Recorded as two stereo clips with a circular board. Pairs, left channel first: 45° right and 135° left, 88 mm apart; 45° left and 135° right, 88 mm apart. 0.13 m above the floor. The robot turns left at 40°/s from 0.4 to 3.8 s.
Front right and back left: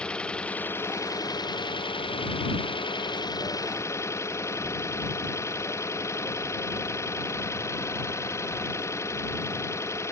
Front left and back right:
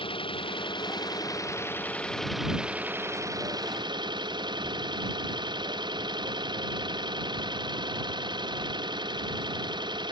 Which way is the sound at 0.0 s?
35° left.